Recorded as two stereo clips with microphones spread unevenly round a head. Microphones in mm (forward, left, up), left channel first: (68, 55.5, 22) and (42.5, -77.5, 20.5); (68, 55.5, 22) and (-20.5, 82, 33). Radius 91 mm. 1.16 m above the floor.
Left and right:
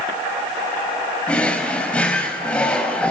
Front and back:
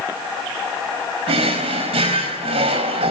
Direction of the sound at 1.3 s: 165° left.